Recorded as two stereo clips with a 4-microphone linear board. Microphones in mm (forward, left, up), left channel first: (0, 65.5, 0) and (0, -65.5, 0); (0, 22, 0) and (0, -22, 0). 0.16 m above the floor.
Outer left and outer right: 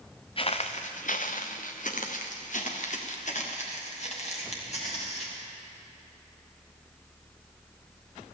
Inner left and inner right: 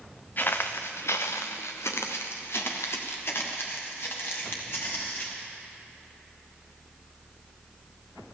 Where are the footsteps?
45° left (ahead or behind), 1.1 m; by 5.4 s 55° left (ahead or behind), 4.5 m.